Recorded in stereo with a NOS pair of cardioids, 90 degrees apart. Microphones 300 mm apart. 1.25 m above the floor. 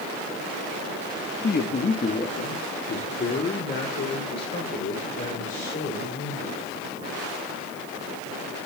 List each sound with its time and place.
1.4 s a man speaking: 30° left, 1.3 m; by 6.6 s 40° left, 4.5 m